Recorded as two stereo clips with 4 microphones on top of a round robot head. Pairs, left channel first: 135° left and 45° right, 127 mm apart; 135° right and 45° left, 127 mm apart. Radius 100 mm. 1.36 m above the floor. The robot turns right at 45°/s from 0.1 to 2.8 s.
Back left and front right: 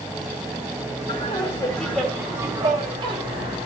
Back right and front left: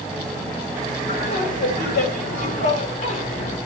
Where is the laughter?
Straight behind, 4 m; by 3.6 s 100° right, 4 m.